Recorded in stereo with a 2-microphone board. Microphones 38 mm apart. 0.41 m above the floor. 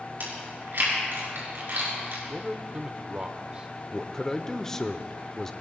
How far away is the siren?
I don't hear a siren.